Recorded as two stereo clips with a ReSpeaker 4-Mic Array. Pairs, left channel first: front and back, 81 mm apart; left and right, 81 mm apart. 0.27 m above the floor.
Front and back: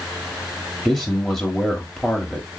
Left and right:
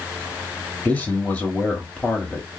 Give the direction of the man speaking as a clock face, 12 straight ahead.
9 o'clock.